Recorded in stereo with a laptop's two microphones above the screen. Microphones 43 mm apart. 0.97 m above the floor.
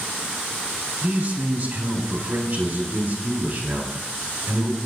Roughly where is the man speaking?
Right.